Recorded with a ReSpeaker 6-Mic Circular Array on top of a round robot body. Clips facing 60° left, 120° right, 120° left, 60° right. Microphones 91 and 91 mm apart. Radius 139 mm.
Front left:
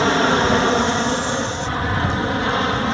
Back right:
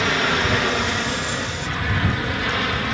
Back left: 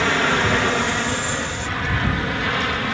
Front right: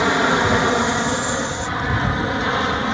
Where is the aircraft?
10° left; by 2.9 s 5° left.